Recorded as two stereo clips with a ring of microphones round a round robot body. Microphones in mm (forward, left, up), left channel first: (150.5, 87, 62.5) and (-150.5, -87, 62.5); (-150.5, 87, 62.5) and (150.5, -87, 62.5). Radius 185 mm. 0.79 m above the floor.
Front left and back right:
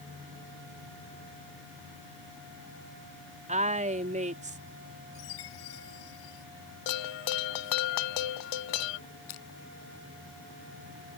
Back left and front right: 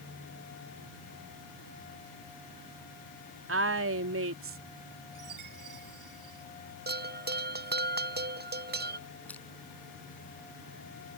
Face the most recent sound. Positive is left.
turn(degrees=65)